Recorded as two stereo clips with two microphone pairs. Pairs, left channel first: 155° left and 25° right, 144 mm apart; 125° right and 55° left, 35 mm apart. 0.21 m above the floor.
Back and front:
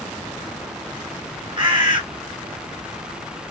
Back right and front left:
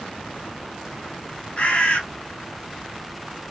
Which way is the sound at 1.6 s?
75° right.